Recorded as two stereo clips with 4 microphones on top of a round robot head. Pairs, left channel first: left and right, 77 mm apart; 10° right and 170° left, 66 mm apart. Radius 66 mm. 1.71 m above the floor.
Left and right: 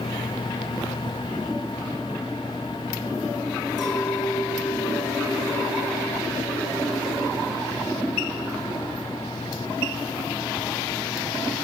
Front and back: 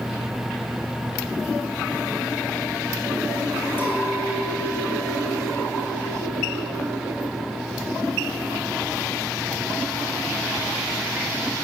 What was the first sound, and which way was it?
A clink, 50° left.